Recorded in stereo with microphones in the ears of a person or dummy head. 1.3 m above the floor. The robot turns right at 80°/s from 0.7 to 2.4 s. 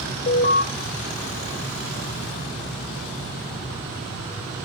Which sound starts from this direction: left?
An alarm, at 0.3 s.